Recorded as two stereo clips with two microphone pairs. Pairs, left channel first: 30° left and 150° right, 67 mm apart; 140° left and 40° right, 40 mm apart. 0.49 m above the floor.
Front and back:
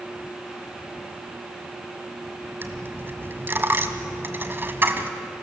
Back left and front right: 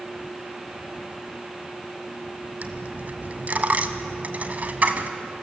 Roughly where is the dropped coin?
Right.